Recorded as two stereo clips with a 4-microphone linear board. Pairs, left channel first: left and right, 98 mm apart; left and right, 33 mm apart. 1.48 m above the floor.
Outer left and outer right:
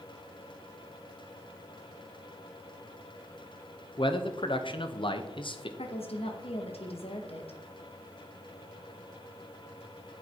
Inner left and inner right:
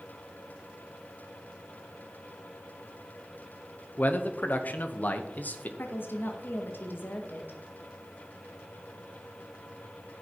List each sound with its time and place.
4.0 s a man speaking: 60° left (ahead or behind), 1.1 m
5.8 s a woman speaking: 85° left, 1.8 m